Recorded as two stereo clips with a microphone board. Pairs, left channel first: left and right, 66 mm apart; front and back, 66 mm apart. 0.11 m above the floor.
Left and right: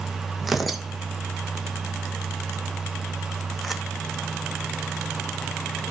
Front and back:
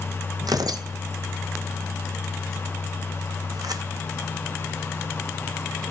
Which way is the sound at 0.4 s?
Straight behind.